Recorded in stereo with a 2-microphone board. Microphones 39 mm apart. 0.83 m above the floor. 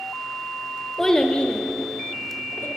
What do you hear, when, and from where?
1.0 s a child speaking: 10° left (ahead or behind), 0.6 m; by 2.7 s 75° left (ahead or behind), 1.1 m